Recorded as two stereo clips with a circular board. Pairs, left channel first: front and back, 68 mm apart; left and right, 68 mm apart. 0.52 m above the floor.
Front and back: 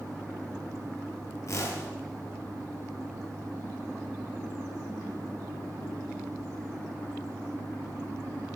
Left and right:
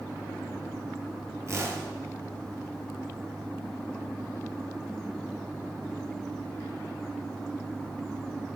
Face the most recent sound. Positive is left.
turn(degrees=-45)